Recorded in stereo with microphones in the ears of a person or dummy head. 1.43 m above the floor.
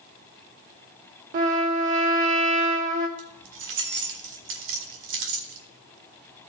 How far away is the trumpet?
About 1.3 m.